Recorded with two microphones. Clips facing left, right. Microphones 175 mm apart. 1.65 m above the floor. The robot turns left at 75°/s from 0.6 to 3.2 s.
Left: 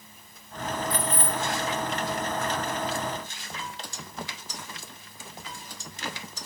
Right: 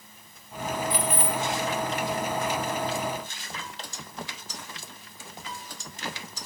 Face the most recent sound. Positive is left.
turn(degrees=40)